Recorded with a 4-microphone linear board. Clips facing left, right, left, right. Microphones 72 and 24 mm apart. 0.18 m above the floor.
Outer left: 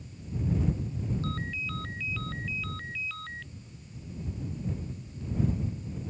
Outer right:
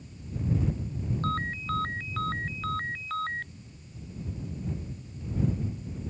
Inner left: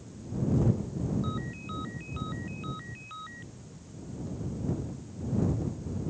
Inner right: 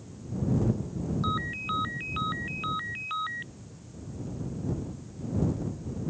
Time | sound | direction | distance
1.2 | a ringtone | 45° right (ahead or behind) | ?